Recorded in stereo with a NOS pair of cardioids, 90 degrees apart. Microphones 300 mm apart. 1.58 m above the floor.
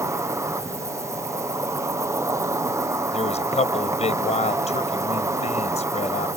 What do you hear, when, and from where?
0.0 s an insect: 10° right
3.1 s a man speaking: 20° left